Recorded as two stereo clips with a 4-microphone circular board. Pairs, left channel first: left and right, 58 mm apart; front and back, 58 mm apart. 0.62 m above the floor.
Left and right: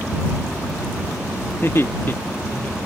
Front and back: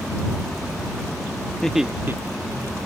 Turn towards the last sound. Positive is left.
turn(degrees=155)